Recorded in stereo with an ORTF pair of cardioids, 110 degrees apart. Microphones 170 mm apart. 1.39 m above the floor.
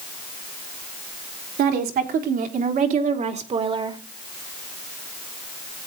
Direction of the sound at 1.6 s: 65° right.